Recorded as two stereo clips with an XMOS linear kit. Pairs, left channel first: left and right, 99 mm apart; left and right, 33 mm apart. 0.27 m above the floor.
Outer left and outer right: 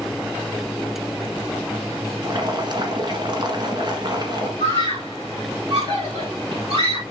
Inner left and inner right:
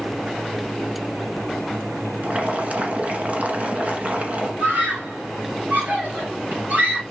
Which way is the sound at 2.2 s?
45° right (ahead or behind).